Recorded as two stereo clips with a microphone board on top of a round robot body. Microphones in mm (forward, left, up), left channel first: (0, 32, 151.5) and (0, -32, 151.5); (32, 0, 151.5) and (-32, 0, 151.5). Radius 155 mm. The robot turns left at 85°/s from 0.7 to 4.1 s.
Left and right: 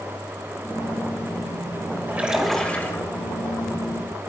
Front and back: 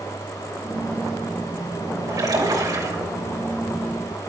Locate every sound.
2.1 s a splash: 145° right, 4 m; by 3.1 s 130° left, 4 m